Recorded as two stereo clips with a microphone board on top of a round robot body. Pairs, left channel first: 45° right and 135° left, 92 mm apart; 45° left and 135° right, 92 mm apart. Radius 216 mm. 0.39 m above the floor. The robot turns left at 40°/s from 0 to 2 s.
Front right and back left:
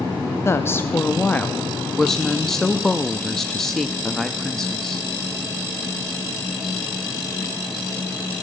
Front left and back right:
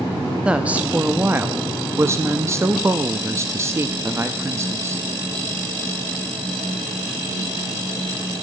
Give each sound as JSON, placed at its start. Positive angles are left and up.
{"t": 0.5, "sound": "a woman speaking", "azimuth_deg": -65, "distance_m": 1.0}